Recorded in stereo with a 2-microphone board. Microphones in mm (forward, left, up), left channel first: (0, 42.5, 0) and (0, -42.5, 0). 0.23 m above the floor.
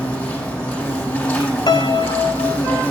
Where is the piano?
55° left (ahead or behind), 0.8 m.